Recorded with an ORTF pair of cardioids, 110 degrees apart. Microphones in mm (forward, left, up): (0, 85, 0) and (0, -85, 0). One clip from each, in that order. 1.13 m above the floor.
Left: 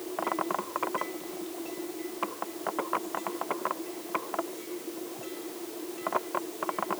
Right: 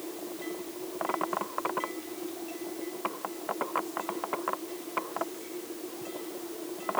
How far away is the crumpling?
No crumpling in this recording.